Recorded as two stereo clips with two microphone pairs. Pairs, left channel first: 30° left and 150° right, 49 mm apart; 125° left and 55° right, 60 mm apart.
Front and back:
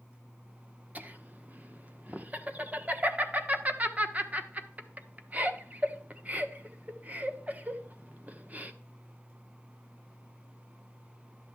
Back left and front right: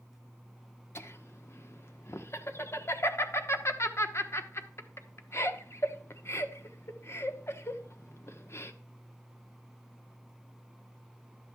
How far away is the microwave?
No microwave in this recording.